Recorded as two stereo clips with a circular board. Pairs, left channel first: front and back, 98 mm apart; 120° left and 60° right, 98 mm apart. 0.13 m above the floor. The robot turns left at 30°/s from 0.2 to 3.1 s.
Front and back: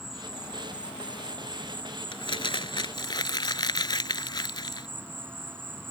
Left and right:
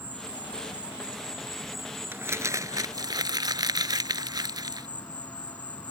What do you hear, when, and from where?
0.0 s an insect: 105° right; by 5.9 s 170° left
2.1 s crumpling: straight ahead; by 4.9 s 30° right